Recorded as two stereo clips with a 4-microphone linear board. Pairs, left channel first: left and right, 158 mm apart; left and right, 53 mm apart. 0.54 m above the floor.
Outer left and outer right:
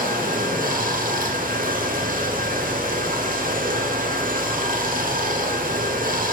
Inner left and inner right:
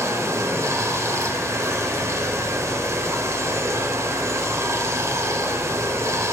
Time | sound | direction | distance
0.0 | running water | 70° right (ahead or behind) | 1.2 m